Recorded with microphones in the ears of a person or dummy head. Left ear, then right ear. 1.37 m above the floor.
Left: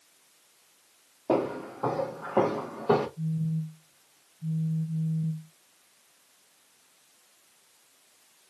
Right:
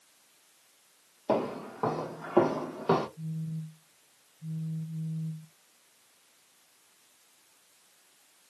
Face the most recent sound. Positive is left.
turn(degrees=5)  # may be behind; listen again after turning